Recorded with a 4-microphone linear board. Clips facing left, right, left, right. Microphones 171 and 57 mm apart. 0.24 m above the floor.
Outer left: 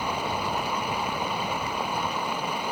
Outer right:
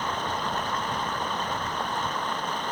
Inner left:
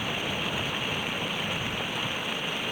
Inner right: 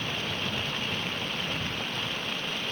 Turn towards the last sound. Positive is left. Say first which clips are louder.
# outer left 1 dB, inner left 2 dB
turn(degrees=10)  # may be behind; listen again after turning